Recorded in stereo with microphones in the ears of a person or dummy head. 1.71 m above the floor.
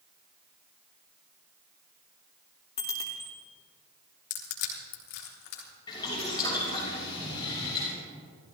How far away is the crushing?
About 3.5 m.